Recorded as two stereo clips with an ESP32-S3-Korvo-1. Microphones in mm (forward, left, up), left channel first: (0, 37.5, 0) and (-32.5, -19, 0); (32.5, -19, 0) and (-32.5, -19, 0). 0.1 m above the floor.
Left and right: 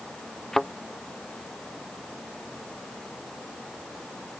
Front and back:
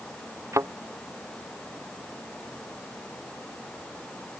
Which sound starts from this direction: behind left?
A thud, at 0.5 s.